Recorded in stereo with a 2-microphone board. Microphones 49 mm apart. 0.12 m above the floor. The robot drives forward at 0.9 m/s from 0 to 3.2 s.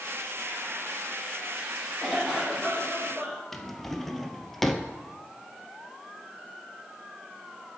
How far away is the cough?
About 3.5 m.